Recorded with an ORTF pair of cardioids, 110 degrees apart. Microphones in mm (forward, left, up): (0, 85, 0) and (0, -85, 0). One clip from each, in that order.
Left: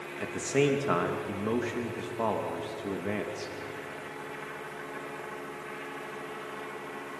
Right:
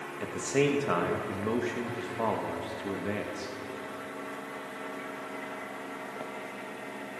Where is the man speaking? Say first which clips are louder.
Even; 5° left, 2.5 m.